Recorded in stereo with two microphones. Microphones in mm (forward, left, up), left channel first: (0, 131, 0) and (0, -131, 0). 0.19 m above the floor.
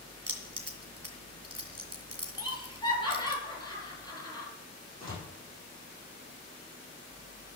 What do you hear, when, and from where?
0.3 s keys jangling: 65° right (ahead or behind), 2.5 m
2.4 s laughter: 15° left (ahead or behind), 4.5 m
5.0 s a door slam: 20° left (ahead or behind), 7.5 m